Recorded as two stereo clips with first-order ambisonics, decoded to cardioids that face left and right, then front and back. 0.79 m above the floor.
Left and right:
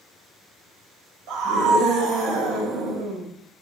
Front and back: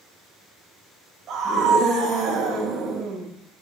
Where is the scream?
125° right, 3 m.